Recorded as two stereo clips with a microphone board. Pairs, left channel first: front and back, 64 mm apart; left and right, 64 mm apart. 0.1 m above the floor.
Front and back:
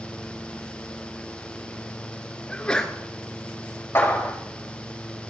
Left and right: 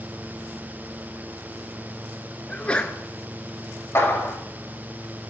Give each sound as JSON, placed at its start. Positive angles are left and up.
{"t": 2.5, "sound": "a sneeze", "azimuth_deg": 55, "distance_m": 1.2}
{"t": 4.0, "sound": "a clap", "azimuth_deg": 50, "distance_m": 4.0}